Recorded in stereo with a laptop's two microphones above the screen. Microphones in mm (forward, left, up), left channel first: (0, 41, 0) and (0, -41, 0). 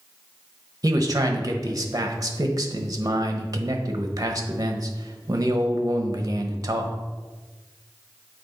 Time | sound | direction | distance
0.8 | a man speaking | 45° right (ahead or behind) | 1.0 m